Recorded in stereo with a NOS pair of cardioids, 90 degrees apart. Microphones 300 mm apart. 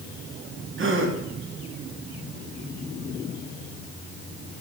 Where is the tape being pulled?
I don't hear tape being pulled.